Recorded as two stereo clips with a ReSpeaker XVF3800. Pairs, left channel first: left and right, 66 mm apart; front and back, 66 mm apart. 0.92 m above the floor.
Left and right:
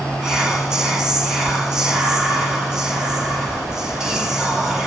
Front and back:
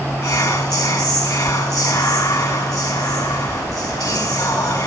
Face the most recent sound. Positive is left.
turn(degrees=-10)